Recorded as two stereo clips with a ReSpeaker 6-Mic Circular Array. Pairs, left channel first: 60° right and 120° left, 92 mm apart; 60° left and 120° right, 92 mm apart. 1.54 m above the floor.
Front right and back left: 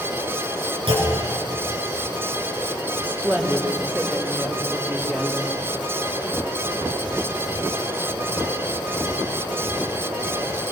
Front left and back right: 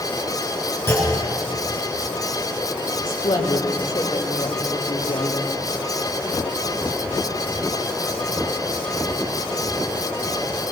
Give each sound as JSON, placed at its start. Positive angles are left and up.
{"t": 0.9, "sound": "a clunk", "azimuth_deg": 120, "distance_m": 6.0}
{"t": 3.0, "sound": "a woman speaking", "azimuth_deg": 50, "distance_m": 4.0}